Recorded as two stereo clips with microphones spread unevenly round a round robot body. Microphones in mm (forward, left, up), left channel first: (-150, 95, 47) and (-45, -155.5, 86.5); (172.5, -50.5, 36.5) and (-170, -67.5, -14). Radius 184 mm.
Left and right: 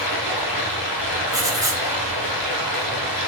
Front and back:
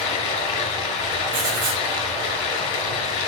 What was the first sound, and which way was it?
Running water, 50° left.